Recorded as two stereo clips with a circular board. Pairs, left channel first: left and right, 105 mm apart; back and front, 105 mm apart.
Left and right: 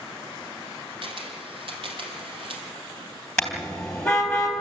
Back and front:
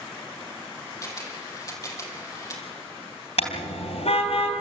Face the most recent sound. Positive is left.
turn(degrees=170)